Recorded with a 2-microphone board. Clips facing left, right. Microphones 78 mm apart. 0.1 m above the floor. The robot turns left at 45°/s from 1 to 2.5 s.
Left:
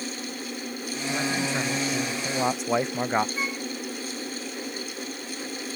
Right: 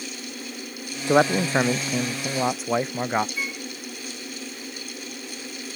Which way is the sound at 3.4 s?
25° left (ahead or behind).